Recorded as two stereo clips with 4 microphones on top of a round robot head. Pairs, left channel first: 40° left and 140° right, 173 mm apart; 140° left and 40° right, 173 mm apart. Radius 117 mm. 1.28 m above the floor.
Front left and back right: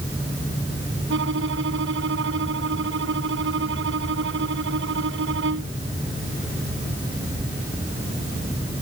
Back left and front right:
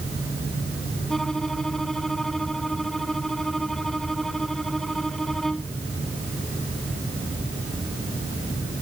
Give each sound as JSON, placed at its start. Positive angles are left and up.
{"t": 1.1, "sound": "a violin", "azimuth_deg": -130}